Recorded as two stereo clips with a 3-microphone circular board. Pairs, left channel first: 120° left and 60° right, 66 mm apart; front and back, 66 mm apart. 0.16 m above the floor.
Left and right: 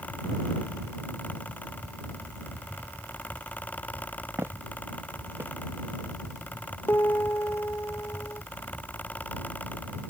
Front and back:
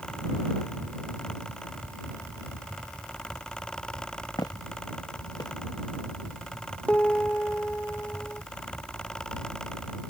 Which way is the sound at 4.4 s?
10° right.